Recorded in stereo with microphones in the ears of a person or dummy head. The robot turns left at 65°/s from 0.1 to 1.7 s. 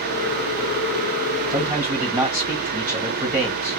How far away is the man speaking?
About 1.8 m.